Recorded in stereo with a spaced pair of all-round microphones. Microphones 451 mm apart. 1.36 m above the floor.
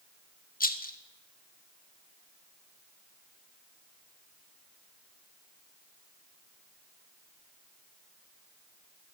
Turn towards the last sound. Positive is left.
turn(degrees=20)  # may be behind; listen again after turning